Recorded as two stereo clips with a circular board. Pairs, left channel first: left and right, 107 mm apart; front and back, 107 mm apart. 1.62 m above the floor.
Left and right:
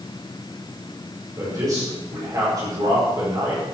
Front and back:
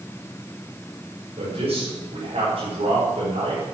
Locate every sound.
1.4 s a man speaking: 150° right, 8 m